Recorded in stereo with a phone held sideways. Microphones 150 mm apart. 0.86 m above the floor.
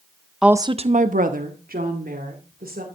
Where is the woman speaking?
Centre (ahead or behind), 0.6 m; by 2.9 s 80° right, 3 m.